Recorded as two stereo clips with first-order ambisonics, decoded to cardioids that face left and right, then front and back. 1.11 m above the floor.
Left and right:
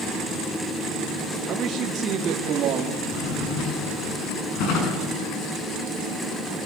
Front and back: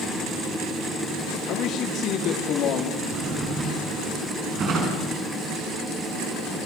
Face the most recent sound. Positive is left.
turn(degrees=120)